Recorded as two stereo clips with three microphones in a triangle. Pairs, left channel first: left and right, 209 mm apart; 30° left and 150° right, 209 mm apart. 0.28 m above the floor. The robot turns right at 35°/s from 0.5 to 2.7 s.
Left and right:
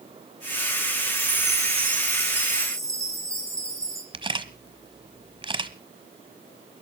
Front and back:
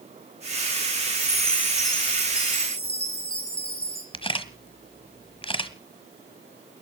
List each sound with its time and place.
1.1 s a chime: 70° right, 3.5 m; by 4.0 s 15° right, 3.5 m
4.1 s a camera shutter: 30° right, 1.2 m